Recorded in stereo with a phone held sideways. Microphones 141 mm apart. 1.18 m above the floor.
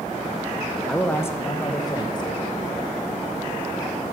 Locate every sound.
0.9 s a man speaking: 5° left (ahead or behind), 0.8 m; by 2.8 s 35° left (ahead or behind), 1.9 m